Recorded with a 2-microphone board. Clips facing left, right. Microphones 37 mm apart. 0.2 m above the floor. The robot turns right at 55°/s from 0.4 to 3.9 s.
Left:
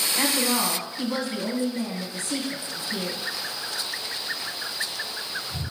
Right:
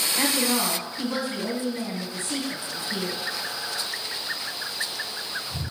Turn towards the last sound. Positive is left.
turn(degrees=-15)